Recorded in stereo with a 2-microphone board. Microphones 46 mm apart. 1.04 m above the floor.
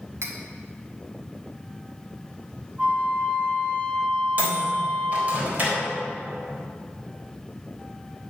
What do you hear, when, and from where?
0.2 s cutlery clinking: 80° right, 1.8 m
2.8 s a flute: 40° right (ahead or behind), 4 m
4.4 s a microwave: 35° right (ahead or behind), 3.5 m